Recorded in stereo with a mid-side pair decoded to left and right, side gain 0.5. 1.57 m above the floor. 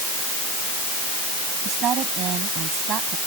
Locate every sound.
1.6 s a woman speaking: 60° right